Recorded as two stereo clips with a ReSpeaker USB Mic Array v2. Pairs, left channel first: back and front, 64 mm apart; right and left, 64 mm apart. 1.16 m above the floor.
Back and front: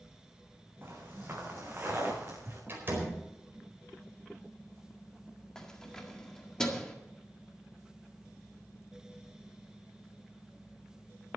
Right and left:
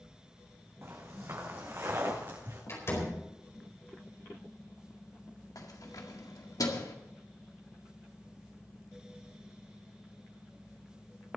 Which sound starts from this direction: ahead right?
A door slam, at 2.7 s.